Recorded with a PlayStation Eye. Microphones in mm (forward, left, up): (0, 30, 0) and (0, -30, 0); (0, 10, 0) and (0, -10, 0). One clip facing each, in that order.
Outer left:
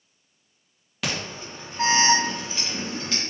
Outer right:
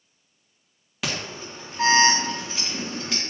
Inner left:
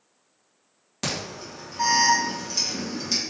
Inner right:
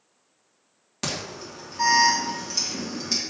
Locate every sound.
1.0 s an alarm: 5° right (ahead or behind), 1.7 m